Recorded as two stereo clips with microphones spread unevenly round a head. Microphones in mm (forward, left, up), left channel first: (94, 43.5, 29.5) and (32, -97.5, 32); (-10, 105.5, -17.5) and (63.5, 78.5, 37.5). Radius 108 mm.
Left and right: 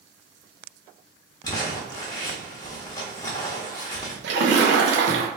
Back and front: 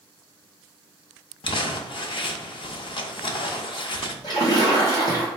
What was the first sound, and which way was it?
Crumpling, 120° left.